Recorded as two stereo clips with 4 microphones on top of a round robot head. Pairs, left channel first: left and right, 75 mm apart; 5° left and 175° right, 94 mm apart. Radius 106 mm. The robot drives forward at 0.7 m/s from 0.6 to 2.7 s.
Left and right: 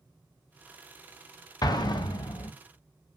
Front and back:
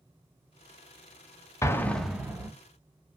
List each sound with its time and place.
1.6 s an explosion: 60° left, 0.6 m; by 2.5 s 125° left, 0.7 m